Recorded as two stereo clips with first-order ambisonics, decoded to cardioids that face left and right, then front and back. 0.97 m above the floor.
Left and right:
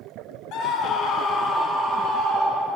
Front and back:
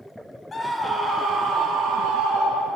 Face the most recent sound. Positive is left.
turn(degrees=-175)